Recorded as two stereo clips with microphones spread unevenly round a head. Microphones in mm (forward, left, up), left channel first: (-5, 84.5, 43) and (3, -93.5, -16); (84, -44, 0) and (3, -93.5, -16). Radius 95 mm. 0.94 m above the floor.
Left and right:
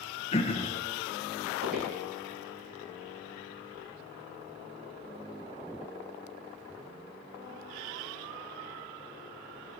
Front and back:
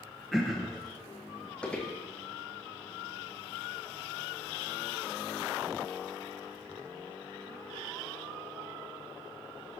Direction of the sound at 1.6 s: 45° right.